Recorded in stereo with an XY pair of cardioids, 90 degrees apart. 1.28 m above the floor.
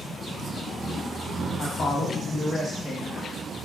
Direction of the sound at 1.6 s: 60° left.